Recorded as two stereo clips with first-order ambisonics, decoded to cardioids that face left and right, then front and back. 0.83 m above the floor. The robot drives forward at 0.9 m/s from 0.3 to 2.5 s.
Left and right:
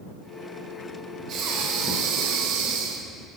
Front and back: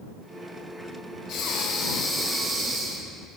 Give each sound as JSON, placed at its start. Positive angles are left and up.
{"t": 1.3, "sound": "breathing", "azimuth_deg": -45, "distance_m": 1.2}